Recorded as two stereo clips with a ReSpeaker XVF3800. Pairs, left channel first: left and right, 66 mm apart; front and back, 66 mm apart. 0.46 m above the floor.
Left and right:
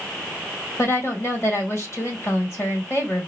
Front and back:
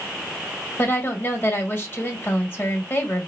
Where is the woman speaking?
50° left, 1.8 m.